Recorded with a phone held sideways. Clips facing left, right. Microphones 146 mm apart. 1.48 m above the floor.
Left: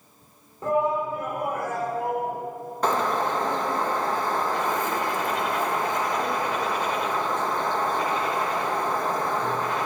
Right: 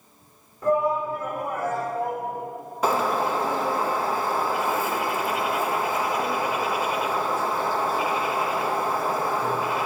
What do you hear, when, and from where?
0.6 s a shout: 25° left (ahead or behind), 4 m; by 2.4 s 10° left (ahead or behind), 4.5 m
2.8 s a bird: 5° right (ahead or behind), 0.7 m